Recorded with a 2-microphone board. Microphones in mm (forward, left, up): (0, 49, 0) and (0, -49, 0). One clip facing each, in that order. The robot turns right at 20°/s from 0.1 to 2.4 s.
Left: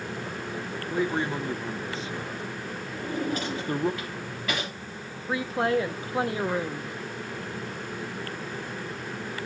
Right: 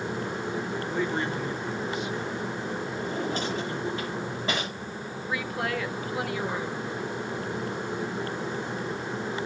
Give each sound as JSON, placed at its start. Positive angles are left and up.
{"t": 0.9, "sound": "a man speaking", "side_deg": 10, "distance_m": 0.8}
{"t": 2.9, "sound": "a drawer", "side_deg": -30, "distance_m": 7.5}
{"t": 5.3, "sound": "a woman speaking", "side_deg": 30, "distance_m": 0.9}